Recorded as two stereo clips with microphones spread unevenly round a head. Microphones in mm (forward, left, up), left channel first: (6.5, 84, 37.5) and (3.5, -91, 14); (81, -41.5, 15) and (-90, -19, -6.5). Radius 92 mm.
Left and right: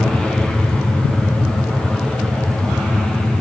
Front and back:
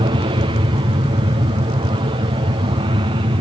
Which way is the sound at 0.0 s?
175° right.